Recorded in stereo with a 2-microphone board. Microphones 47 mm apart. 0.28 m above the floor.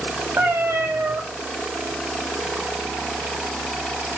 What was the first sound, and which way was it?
A cat meowing, 70° right (ahead or behind).